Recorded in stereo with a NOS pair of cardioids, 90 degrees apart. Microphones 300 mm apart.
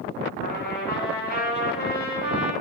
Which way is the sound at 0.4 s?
35° left.